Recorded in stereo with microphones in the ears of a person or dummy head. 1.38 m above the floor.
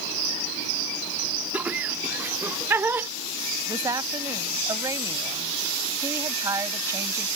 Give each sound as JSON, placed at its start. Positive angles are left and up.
{"t": 1.5, "sound": "laughter", "side_deg": -10}
{"t": 3.7, "sound": "a woman speaking", "side_deg": -15}